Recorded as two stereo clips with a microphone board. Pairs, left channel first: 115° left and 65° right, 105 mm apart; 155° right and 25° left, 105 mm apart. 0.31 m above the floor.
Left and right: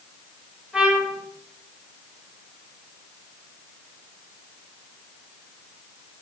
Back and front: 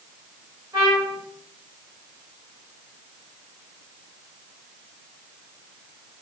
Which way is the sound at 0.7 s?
10° left.